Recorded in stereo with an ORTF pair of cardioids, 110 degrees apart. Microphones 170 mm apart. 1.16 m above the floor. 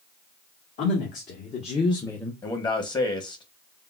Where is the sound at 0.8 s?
65° left, 1.4 m; by 2.3 s straight ahead, 0.6 m.